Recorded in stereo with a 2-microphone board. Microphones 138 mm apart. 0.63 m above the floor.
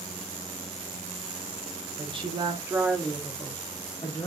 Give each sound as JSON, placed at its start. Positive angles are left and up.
{"t": 2.0, "sound": "a woman speaking", "side_deg": -45, "distance_m": 0.9}